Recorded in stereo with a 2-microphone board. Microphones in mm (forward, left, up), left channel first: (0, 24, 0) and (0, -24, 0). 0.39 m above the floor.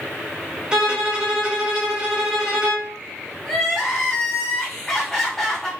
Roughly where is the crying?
Centre.